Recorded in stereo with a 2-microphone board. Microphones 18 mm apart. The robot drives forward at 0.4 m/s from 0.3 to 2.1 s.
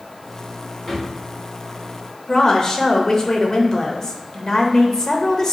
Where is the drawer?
10° right (ahead or behind), 1.6 m.